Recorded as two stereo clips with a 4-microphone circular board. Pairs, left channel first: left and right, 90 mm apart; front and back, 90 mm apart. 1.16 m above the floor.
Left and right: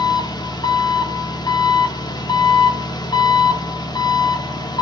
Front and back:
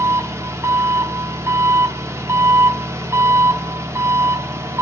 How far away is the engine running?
About 1.2 m.